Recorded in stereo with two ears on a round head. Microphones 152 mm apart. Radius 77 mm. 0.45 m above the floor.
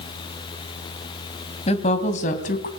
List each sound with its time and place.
1.7 s a woman speaking: 35° left (ahead or behind), 3 m; by 2.7 s 50° left (ahead or behind), 3.5 m